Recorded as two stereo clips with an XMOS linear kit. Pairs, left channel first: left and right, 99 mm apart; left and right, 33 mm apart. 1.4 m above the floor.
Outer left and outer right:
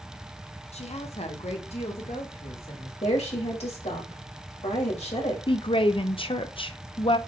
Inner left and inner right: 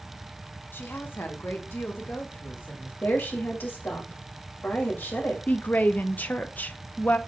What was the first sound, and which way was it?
A woman speaking, 85° left.